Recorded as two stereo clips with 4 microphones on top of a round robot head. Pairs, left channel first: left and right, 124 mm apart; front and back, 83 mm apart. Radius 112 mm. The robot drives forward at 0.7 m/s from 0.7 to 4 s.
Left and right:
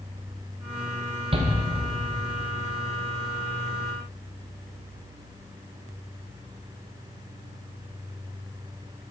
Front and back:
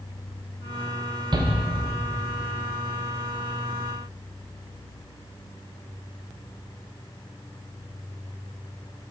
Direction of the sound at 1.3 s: 135° right.